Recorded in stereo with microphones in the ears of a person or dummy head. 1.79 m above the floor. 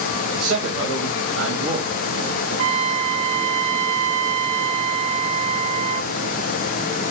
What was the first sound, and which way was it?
A man speaking, 85° right.